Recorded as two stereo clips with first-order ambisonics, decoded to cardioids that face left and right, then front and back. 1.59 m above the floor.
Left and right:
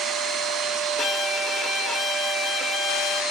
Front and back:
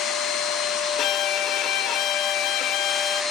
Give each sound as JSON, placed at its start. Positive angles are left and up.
{"t": 1.0, "sound": "a violin", "azimuth_deg": 25, "distance_m": 0.8}